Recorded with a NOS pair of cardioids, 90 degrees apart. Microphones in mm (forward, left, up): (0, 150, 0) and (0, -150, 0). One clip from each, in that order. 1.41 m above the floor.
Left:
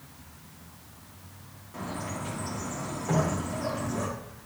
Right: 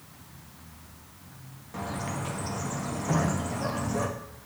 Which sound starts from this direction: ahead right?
A bird, at 1.7 s.